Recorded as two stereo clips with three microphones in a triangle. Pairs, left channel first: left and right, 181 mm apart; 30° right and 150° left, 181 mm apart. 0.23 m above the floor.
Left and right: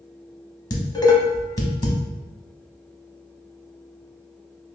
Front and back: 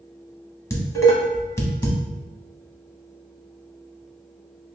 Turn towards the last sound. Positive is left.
turn(degrees=35)